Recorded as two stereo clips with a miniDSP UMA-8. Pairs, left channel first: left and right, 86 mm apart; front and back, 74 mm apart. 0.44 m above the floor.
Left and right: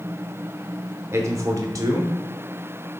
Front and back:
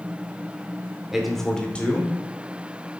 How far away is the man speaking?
About 0.8 m.